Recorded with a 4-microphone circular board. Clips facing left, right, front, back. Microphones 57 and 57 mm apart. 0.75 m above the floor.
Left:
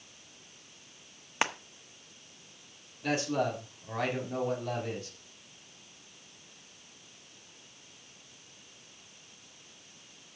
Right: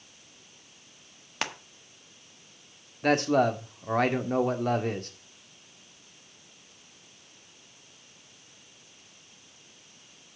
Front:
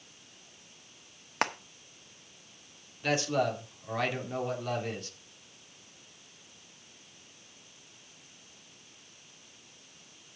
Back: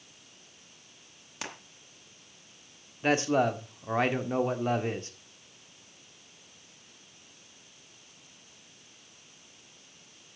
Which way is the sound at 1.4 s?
20° left.